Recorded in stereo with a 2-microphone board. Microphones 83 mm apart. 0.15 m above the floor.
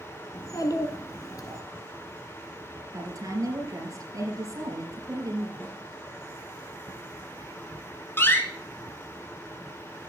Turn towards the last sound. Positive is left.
turn(degrees=30)  # may be behind; listen again after turning